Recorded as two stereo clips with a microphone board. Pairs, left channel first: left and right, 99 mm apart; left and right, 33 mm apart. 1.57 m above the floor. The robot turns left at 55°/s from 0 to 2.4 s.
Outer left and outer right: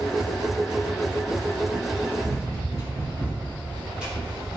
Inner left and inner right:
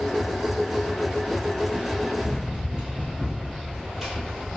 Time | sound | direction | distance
2.2 | running footsteps | 30° right (ahead or behind) | 1.9 m